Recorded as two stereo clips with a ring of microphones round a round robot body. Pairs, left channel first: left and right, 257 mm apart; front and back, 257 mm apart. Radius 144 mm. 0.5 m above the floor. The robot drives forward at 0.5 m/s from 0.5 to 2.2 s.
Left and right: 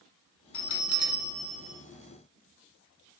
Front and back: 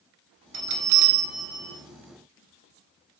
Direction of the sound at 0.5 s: 135° left.